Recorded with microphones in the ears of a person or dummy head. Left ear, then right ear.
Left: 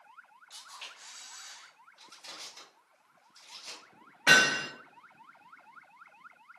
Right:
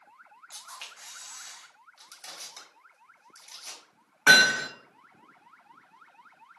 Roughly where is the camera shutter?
Right.